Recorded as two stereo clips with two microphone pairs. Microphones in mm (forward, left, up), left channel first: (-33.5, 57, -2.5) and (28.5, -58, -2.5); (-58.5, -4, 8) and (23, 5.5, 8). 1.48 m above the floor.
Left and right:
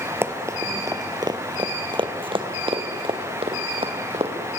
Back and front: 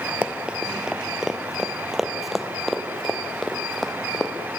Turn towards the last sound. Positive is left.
turn(degrees=-90)